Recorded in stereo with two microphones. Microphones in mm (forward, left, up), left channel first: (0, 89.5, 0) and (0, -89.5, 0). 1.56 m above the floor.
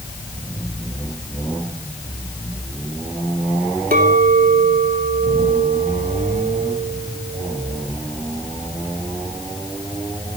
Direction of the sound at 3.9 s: 55° right (ahead or behind).